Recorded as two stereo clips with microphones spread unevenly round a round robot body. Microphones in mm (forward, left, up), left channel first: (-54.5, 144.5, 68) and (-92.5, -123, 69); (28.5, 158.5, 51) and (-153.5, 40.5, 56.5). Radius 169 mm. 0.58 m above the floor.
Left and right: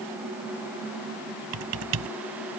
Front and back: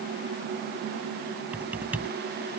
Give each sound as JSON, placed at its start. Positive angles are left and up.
{"t": 1.5, "sound": "typing on a keyboard", "azimuth_deg": -60}